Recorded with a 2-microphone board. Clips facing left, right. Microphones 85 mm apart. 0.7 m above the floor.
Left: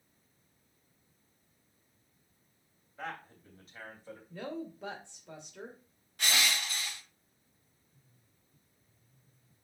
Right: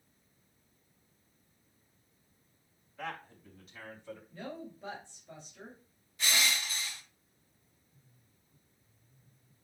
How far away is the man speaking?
About 3 m.